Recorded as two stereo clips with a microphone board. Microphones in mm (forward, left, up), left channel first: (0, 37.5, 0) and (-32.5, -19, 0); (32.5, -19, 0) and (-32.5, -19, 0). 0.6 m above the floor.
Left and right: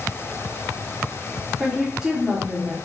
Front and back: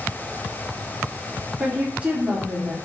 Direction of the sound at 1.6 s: 175° left.